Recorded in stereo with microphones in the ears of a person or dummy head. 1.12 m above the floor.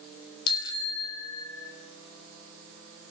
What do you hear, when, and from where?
0.5 s a bicycle bell: 25° left (ahead or behind), 4.5 m; by 1.7 s 20° left (ahead or behind), 5 m